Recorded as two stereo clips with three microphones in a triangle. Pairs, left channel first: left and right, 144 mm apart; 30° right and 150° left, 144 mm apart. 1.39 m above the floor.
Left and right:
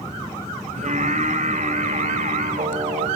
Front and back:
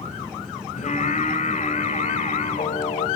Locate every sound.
0.8 s singing: 60° right, 6 m